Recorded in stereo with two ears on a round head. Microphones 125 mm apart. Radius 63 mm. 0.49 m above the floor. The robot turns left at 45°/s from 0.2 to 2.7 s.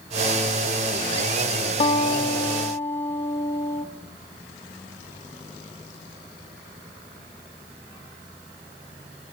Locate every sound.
1.8 s a guitar: 65° left, 1.4 m; by 3.9 s 25° left, 1.4 m